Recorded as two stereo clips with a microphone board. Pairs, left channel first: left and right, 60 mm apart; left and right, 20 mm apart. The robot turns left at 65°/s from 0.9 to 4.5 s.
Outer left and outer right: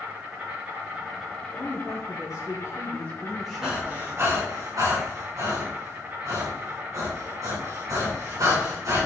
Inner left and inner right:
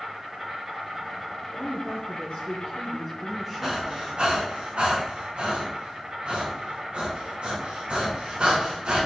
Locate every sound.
0.0 s an insect: 160° right, 3 m; by 9.1 s 35° right, 3 m
1.6 s a woman speaking: 125° left, 3.5 m; by 4.1 s 45° right, 3.5 m
3.6 s breathing: 10° right (ahead or behind), 3 m; by 9.1 s 65° right (ahead or behind), 3 m